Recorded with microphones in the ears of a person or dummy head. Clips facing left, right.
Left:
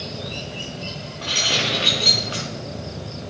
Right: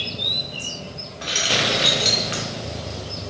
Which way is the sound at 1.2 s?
25° right (ahead or behind).